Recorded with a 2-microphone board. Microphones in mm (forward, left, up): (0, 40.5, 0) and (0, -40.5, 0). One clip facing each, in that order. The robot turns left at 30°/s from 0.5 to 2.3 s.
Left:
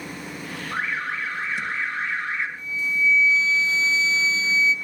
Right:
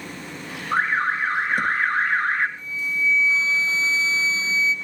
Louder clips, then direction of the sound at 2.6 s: Left 1 dB; 35° right (ahead or behind).